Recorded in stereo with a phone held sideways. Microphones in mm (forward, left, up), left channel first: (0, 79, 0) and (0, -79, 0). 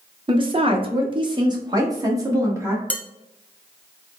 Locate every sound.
0.3 s a woman speaking: 30° right (ahead or behind), 0.6 m; by 2.8 s 20° right (ahead or behind), 1.6 m
2.9 s dishes clattering: 10° left (ahead or behind), 0.5 m